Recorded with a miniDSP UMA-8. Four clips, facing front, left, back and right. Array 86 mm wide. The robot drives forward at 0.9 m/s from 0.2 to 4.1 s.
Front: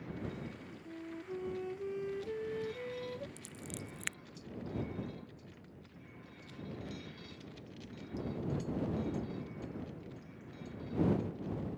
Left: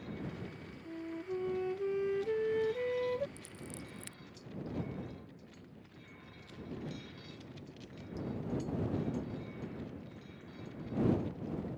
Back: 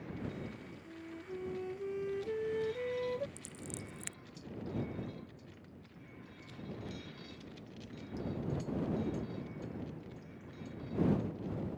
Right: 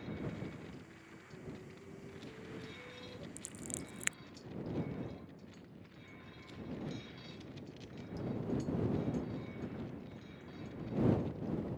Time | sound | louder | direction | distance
0.8 | a flute | left 15 dB, front 3 dB | 70° left | ?
3.4 | scissors | even, even | 50° right | ?